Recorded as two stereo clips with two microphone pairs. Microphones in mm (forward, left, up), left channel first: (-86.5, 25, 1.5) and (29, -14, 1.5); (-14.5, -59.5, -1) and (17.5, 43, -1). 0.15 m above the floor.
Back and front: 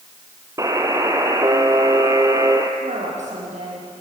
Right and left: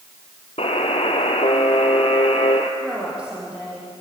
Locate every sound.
0.6 s a buzzer: 80° right, 1.7 m
2.8 s a woman speaking: 10° right, 5 m